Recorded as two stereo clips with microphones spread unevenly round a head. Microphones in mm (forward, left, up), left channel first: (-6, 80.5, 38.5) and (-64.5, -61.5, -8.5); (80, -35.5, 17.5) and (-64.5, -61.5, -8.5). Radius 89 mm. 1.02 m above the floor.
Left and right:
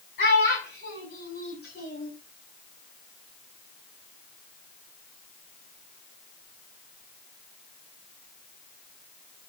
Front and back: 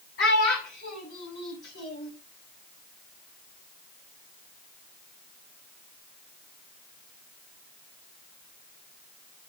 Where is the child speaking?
25° left, 7.5 m.